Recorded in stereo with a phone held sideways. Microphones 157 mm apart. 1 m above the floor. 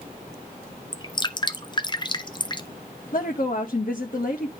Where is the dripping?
30° left (ahead or behind), 0.6 m.